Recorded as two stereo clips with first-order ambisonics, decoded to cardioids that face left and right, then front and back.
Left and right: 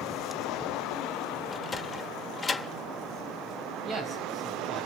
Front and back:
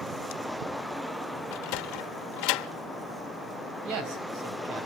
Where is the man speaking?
155° right, 5 m.